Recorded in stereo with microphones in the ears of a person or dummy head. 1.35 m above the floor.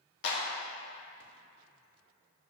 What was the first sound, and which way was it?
A clap, 60° left (ahead or behind).